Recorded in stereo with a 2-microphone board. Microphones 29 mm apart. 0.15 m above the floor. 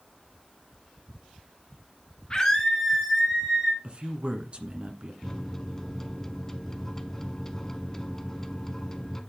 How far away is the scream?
About 1.8 m.